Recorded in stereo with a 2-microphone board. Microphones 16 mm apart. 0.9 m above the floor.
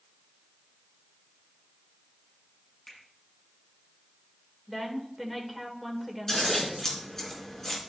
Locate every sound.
2.9 s a finger snap: 30° left (ahead or behind), 6.5 m
4.7 s a woman speaking: 5° left (ahead or behind), 2.5 m
6.3 s scissors: 35° left (ahead or behind), 3.5 m